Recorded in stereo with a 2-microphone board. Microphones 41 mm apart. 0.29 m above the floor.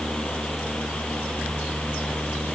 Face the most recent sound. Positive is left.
No sound to turn to.